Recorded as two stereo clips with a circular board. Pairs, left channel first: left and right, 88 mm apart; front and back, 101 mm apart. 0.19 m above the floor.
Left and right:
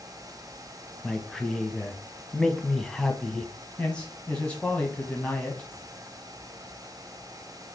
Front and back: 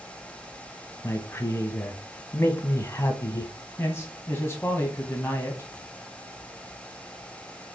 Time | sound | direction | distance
1.0 | a man speaking | 10° left | 1.1 m
3.8 | a man speaking | 30° left | 1.6 m